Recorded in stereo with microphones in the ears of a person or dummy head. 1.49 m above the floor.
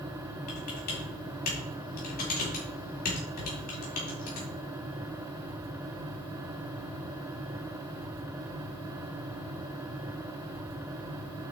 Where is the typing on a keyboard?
55° left (ahead or behind), 4 m.